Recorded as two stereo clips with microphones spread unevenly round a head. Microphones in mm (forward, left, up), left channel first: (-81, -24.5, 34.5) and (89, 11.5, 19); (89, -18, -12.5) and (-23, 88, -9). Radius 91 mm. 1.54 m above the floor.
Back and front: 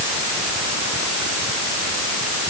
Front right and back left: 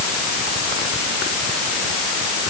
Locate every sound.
Only background noise.